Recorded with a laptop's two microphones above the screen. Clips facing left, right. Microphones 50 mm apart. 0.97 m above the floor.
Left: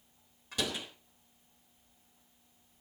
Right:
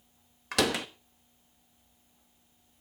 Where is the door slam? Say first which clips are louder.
Right 8 dB; 75° right (ahead or behind), 1.0 m.